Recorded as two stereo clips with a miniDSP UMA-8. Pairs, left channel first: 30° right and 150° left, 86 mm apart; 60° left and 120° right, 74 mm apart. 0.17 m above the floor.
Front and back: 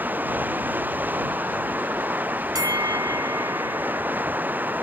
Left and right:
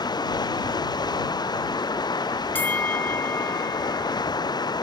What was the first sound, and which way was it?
Running water, 80° left.